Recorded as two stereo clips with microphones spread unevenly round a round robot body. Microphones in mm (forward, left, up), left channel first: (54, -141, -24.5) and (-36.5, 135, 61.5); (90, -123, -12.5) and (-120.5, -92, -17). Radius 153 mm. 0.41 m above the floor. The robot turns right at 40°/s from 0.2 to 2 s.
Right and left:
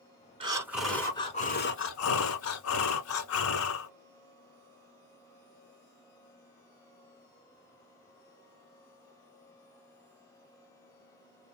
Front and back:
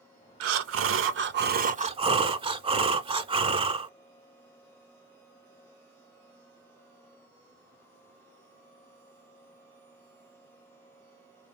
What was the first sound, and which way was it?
Breathing, 175° left.